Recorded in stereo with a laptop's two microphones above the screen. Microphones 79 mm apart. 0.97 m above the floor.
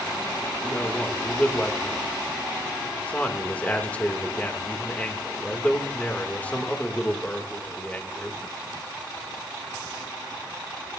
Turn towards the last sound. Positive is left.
turn(degrees=20)  # may be behind; listen again after turning